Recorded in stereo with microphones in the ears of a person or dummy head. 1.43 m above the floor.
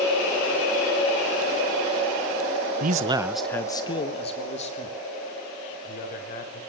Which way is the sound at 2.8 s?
50° right (ahead or behind).